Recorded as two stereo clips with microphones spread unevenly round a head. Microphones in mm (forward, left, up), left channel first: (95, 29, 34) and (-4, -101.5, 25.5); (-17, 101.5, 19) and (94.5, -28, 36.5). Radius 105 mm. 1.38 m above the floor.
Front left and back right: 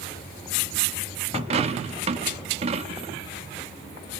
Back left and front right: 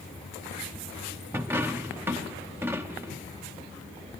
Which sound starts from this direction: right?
A dropped coin, at 1.3 s.